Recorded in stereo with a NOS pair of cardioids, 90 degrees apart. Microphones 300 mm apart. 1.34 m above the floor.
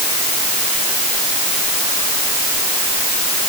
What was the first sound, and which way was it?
Only background noise.